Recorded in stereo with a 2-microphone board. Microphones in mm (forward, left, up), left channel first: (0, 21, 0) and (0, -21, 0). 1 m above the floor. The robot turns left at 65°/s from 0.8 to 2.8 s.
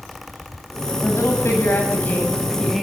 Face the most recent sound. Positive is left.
turn(degrees=-5)